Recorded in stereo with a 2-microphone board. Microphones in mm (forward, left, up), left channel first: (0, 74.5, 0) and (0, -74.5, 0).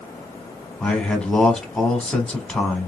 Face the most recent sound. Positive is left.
turn(degrees=5)  # may be behind; listen again after turning